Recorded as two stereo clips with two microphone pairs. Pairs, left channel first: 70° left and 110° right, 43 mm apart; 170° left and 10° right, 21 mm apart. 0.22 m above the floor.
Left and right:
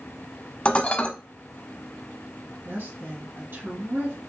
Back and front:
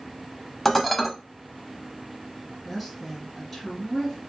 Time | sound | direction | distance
0.7 | dishes clattering | 75° left | 0.7 m
2.6 | a woman speaking | 100° right | 3 m